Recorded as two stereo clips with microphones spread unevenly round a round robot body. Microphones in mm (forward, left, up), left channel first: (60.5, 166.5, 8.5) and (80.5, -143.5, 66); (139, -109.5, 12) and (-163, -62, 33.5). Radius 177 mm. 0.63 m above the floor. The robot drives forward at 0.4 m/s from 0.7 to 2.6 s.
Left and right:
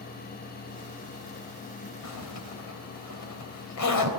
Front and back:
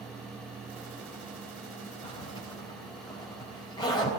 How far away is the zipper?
About 4 m.